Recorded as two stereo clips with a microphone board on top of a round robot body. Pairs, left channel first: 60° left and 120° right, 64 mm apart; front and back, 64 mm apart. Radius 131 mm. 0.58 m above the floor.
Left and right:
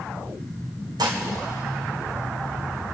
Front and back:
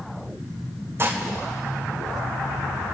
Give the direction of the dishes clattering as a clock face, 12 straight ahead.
4 o'clock.